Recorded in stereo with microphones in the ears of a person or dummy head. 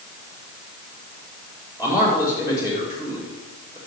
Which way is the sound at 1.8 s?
15° right (ahead or behind).